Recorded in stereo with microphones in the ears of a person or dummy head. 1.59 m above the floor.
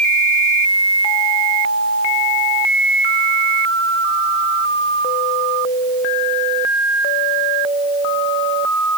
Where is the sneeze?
No sneeze in this recording.